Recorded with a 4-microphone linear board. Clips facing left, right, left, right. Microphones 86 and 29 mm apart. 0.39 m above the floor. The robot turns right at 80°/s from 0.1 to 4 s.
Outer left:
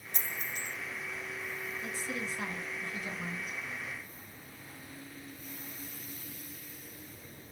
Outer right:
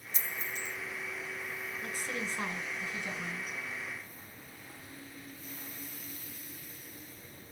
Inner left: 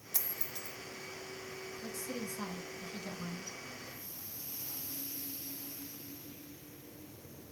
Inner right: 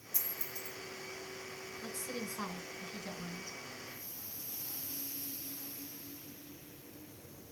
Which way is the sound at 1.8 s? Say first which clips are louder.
Outer right 1 dB, even; 95° right.